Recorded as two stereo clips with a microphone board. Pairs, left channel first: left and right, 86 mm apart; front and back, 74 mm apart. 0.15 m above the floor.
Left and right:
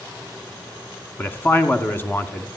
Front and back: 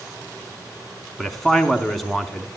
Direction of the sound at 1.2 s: 80° left.